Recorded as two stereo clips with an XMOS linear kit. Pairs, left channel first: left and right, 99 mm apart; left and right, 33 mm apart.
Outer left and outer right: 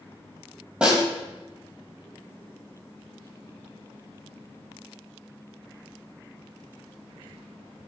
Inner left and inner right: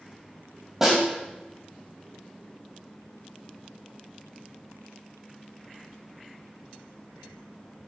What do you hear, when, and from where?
0.8 s a snare drum: 10° right (ahead or behind), 1.3 m